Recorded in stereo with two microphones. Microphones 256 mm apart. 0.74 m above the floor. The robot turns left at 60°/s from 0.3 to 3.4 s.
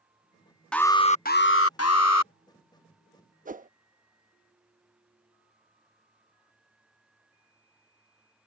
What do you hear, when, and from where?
0.7 s an alarm: 175° left; by 2.3 s 80° left
3.5 s a whoosh: 30° right (ahead or behind)